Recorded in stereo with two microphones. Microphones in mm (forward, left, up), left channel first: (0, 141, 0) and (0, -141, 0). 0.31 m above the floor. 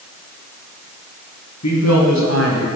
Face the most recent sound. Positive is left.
turn(degrees=45)  # may be behind; listen again after turning